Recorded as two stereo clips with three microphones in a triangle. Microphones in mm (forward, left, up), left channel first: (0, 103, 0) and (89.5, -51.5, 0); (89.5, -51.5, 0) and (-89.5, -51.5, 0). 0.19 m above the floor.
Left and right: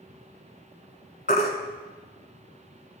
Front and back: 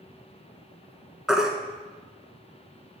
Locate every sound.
1.3 s a baby crying: 95° left, 0.8 m